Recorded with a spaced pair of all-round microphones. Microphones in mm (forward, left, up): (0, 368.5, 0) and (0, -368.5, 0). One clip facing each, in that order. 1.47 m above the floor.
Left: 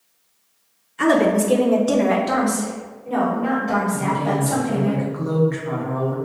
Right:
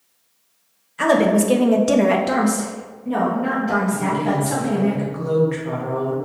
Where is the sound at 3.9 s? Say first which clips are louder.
Right 1 dB; 55° right (ahead or behind), 1.1 m.